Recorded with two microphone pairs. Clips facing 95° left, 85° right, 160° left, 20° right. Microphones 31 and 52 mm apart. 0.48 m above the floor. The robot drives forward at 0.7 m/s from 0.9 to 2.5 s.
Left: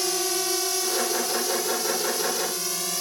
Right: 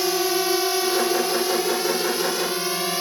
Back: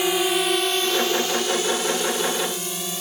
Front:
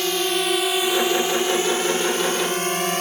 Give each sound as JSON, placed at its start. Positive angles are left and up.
{"t": 0.0, "sound": "a drone", "azimuth_deg": -145}